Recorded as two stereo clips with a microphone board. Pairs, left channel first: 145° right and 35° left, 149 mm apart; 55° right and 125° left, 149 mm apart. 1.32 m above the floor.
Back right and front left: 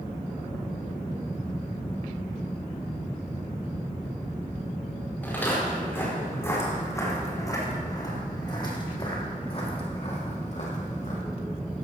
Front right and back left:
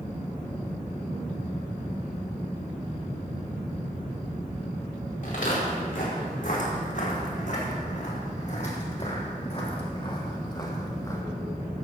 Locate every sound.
5.2 s footsteps: 70° right, 5.5 m; by 11.2 s 125° right, 3 m